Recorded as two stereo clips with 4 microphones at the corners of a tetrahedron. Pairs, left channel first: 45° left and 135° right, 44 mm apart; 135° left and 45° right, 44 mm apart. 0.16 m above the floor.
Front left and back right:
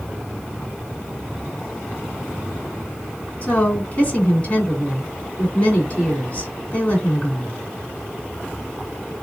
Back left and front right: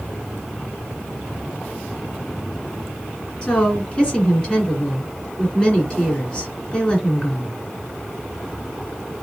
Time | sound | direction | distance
3.4 | a woman speaking | 85° left | 2.0 m